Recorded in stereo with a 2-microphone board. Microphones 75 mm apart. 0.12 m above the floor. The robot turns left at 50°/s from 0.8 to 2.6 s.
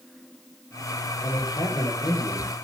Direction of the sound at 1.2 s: 125° left.